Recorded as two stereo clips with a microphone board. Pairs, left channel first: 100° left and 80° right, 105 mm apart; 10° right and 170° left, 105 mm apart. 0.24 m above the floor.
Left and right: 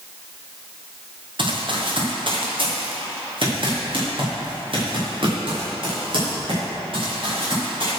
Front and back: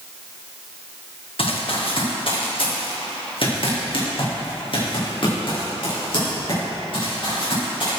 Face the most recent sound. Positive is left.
turn(degrees=-45)